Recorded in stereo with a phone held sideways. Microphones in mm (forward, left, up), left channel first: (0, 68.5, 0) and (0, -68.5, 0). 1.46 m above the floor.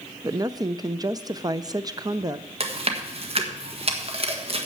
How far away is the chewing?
About 1.6 m.